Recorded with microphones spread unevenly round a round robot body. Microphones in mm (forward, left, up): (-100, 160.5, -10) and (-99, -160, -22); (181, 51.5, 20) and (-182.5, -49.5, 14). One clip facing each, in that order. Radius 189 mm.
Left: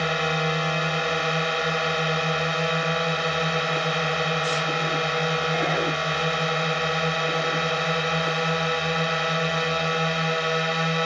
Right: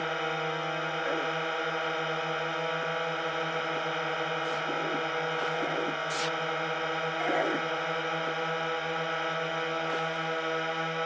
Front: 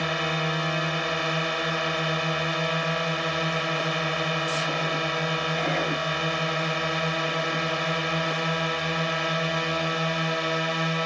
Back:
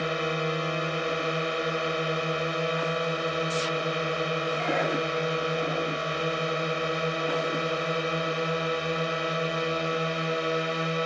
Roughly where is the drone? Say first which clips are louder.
Left 7 dB, back 1 dB; left.